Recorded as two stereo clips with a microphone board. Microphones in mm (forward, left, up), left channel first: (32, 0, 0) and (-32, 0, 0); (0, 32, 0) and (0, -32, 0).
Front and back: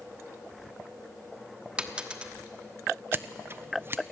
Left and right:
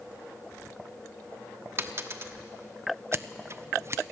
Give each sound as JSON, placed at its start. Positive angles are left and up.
{"t": 1.8, "sound": "a dropped coin", "azimuth_deg": -115, "distance_m": 1.2}
{"t": 3.1, "sound": "scissors", "azimuth_deg": -130, "distance_m": 0.7}